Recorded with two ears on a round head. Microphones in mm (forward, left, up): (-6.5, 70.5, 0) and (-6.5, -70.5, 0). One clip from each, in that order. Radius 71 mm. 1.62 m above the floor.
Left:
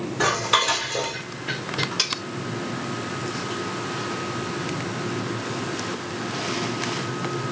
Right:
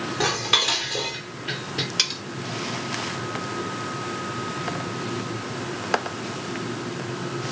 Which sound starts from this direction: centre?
Dishes clattering, at 0.2 s.